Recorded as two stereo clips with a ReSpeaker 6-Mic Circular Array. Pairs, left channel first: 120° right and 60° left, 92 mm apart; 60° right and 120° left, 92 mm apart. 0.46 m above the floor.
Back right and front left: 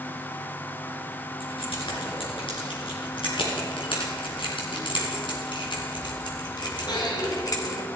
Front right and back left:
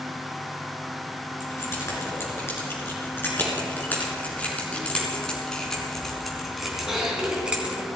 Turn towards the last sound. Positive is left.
turn(degrees=-165)